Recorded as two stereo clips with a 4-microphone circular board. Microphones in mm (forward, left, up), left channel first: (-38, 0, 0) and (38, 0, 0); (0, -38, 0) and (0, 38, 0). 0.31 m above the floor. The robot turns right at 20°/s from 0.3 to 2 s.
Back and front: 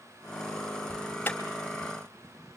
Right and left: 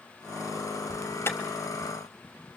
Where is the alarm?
130° right, 2.5 m; by 1.4 s 120° right, 2.5 m.